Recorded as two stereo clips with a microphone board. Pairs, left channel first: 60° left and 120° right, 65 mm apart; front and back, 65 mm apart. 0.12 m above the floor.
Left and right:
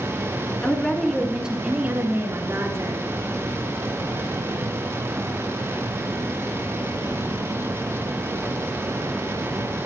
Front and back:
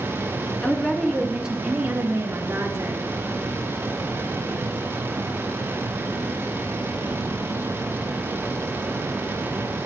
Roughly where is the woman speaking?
Ahead left.